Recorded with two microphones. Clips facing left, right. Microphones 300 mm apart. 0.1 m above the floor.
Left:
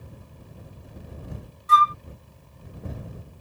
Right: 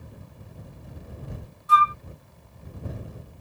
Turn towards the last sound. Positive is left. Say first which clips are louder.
# left 1 dB
turn(degrees=30)  # may be behind; listen again after turning